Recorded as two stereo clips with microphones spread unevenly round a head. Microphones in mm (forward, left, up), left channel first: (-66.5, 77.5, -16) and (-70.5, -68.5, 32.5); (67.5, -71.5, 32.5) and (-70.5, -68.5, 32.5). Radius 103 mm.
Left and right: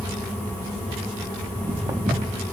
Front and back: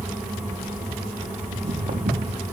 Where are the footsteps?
145° right, 4 m.